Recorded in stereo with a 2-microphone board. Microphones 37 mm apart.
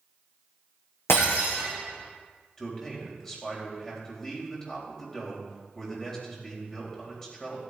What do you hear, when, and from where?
1.1 s breaking glass: 85° left, 5.5 m
2.6 s a man speaking: 10° left (ahead or behind), 3.5 m